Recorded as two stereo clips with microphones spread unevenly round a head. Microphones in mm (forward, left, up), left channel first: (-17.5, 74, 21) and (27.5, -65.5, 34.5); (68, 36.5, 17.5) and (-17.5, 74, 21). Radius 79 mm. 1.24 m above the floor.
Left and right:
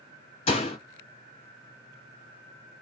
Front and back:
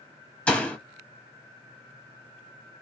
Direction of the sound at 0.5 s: 55° left.